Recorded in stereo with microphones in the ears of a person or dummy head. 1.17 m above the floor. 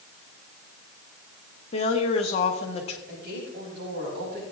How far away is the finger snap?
No finger snap in this recording.